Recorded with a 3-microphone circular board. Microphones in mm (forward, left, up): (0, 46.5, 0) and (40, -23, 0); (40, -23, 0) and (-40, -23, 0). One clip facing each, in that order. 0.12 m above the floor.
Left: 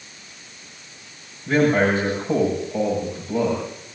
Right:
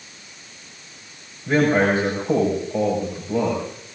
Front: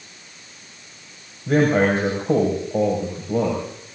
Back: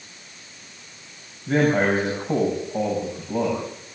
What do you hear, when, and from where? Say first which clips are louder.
1.5 s a man speaking: even, front 2 dB; 10° left, 7.5 m